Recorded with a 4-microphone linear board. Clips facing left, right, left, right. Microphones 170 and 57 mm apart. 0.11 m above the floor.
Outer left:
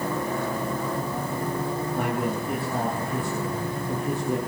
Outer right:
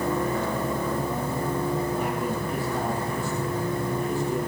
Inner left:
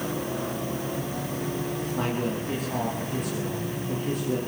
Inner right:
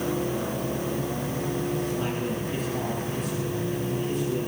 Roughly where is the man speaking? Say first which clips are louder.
Outer left 1 dB, inner left 1 dB; left.